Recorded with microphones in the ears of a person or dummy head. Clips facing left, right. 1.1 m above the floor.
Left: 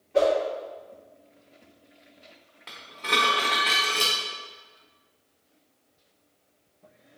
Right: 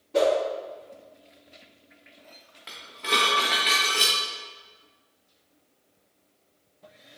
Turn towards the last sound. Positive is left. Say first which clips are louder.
# right 1 dB
turn(degrees=0)  # may be behind; listen again after turning